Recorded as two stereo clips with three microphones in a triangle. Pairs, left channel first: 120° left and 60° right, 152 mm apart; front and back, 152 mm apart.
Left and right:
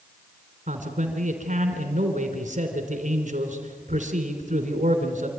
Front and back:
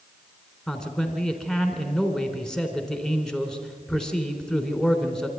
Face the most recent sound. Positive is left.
turn(degrees=-85)